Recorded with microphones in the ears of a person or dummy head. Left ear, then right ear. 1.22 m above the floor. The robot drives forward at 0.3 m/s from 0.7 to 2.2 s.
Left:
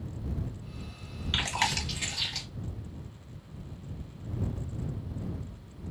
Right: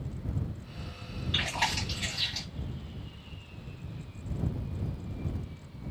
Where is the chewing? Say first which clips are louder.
Left 1 dB; 65° left (ahead or behind), 1.1 m; by 2.5 s 60° left (ahead or behind), 1.2 m.